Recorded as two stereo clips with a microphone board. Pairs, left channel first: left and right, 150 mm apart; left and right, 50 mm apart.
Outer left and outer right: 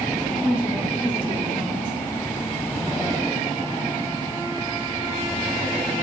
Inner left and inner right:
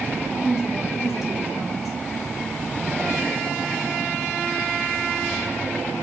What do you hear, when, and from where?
0.4 s a woman speaking: 10° right (ahead or behind), 3 m